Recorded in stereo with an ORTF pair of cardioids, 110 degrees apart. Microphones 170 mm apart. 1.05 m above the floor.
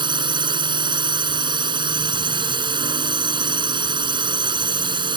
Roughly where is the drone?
Ahead right.